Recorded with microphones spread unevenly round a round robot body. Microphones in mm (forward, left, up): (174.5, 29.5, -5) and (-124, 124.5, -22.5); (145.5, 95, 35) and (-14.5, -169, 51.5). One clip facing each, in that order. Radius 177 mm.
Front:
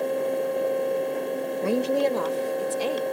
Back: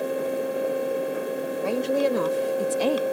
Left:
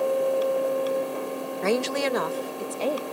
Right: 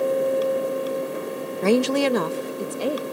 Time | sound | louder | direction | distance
1.6 | a woman speaking | even, right 6 dB | 80° right | ?